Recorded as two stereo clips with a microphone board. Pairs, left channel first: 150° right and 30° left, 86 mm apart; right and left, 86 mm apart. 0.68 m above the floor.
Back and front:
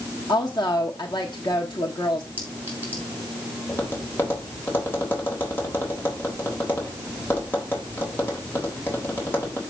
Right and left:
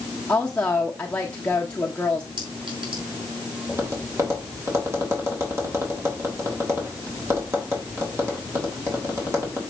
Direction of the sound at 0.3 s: 165° right.